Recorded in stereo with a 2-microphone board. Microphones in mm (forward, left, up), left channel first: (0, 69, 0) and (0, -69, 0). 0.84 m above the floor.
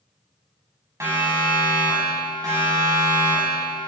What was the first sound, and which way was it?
A siren, 20° right (ahead or behind).